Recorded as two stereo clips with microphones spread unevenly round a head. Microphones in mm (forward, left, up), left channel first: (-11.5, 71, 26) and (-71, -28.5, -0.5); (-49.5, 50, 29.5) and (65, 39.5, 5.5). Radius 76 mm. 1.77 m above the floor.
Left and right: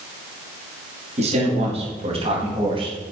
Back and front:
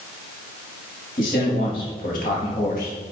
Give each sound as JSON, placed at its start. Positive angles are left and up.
{"t": 1.2, "sound": "a man speaking", "azimuth_deg": -150, "distance_m": 5.0}